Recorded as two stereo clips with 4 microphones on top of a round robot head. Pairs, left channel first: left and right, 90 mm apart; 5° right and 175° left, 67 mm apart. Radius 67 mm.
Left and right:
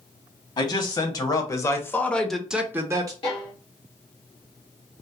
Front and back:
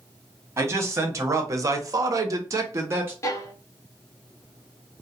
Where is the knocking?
No knocking in this recording.